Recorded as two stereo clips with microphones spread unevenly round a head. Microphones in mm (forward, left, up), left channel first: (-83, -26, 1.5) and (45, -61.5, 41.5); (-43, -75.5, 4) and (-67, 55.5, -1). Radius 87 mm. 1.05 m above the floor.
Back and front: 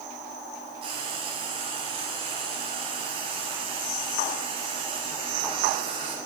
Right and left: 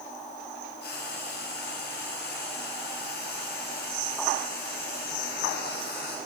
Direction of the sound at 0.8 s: 65° right.